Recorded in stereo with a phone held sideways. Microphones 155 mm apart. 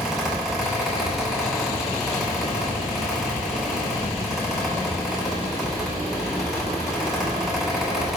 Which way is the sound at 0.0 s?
Centre (ahead or behind).